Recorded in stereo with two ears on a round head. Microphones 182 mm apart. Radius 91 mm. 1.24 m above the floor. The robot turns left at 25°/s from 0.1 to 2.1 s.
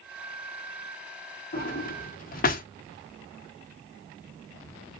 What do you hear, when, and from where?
1.5 s a drawer: 45° left (ahead or behind), 0.7 m